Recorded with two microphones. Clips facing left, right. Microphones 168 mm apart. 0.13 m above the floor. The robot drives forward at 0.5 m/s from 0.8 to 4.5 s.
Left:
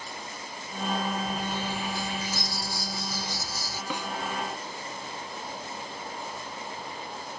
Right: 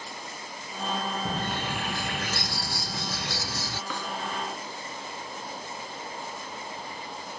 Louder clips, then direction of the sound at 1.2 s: Even; 60° right (ahead or behind).